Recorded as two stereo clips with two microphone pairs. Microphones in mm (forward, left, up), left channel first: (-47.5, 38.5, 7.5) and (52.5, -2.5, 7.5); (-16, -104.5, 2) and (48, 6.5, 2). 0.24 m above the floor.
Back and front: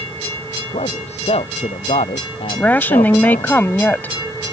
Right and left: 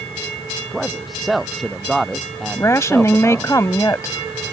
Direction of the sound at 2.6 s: 150° right.